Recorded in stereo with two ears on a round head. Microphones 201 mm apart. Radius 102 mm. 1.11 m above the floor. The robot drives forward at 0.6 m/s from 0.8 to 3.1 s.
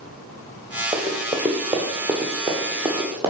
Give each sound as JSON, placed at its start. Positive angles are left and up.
{"t": 0.9, "sound": "running footsteps", "side_deg": 0, "distance_m": 1.2}